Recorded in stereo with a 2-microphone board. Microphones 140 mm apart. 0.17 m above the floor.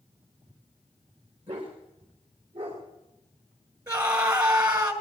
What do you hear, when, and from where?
1.5 s a dog barking: 55° right (ahead or behind), 4.5 m; by 3.8 s 70° right (ahead or behind), 6.5 m
3.9 s a scream: 30° right (ahead or behind), 2.5 m